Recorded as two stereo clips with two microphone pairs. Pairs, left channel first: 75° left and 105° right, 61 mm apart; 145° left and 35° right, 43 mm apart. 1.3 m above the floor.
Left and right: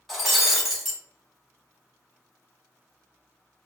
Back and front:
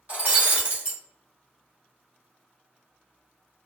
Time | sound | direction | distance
0.1 | breaking glass | 15° right | 0.9 m